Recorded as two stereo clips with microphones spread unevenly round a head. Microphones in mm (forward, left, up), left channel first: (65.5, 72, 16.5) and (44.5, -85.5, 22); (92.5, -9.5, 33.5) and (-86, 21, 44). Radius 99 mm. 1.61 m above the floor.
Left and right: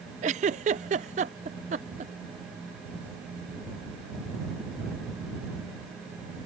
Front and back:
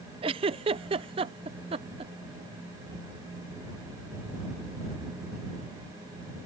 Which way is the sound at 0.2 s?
135° right.